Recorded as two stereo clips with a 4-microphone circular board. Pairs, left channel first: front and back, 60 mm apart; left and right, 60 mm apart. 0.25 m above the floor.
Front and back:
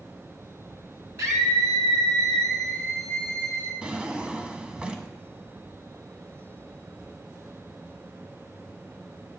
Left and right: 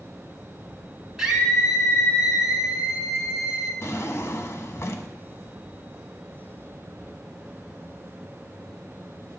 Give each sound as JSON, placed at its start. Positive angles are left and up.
{"t": 1.2, "sound": "a scream", "azimuth_deg": -170, "distance_m": 3.0}
{"t": 3.8, "sound": "a drawer", "azimuth_deg": 110, "distance_m": 0.9}